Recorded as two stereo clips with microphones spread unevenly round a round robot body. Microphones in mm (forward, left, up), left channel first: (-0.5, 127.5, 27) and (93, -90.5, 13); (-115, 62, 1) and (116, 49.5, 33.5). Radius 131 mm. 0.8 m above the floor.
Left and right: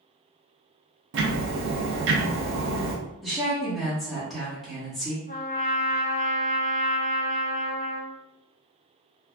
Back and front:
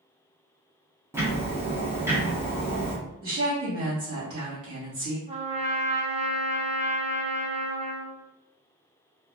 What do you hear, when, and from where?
1.1 s ticking: 90° right, 0.7 m
3.2 s a woman speaking: 20° left, 1.7 m
5.3 s a trumpet: 55° left, 0.8 m